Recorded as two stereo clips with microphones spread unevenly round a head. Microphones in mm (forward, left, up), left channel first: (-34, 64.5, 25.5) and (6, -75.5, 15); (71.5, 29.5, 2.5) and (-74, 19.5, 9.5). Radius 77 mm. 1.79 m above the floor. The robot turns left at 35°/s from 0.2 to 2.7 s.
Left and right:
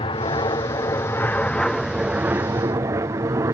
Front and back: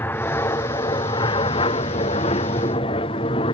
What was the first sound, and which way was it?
An aircraft, 70° left.